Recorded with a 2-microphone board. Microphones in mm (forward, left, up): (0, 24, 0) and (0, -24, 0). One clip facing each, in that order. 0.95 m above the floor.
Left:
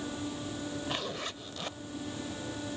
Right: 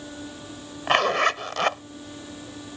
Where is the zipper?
80° right.